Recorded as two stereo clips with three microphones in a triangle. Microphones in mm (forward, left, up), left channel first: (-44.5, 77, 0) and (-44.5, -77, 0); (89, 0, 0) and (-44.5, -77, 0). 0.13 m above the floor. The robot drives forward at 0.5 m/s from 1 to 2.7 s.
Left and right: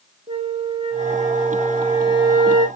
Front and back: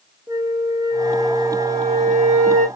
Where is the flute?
100° right, 0.8 m; by 2.7 s 150° right, 1.2 m.